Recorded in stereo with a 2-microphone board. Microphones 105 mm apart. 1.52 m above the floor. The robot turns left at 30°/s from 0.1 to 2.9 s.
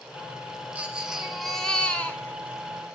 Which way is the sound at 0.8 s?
160° right.